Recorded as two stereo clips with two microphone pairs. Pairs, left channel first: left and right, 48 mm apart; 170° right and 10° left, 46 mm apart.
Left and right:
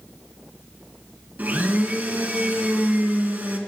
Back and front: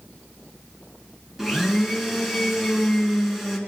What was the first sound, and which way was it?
A blender, 70° right.